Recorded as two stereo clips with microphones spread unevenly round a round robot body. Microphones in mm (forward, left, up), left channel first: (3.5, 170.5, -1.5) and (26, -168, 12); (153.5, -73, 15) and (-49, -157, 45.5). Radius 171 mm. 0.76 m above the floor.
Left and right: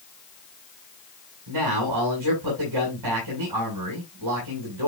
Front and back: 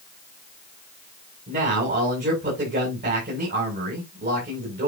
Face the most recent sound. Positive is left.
turn(degrees=-120)